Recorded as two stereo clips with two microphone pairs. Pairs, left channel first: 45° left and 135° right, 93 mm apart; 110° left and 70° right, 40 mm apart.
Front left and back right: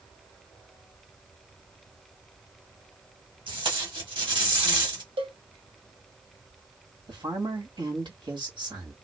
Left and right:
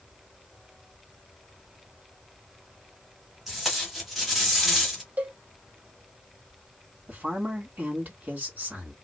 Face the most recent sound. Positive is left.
turn(degrees=-105)